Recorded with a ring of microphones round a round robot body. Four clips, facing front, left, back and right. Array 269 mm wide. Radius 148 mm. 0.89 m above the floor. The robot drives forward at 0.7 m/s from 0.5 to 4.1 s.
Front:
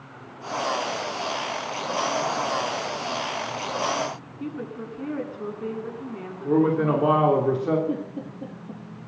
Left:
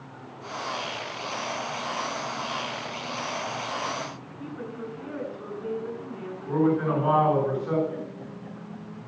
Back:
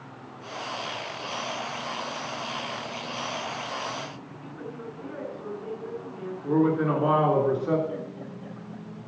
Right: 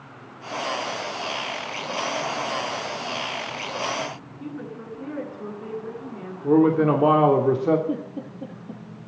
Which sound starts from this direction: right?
A man speaking, at 6.4 s.